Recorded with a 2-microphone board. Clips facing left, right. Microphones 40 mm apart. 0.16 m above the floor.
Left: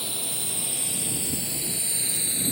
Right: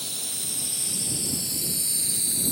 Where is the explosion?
I don't hear an explosion.